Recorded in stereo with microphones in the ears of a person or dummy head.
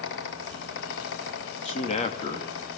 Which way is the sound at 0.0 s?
65° left (ahead or behind).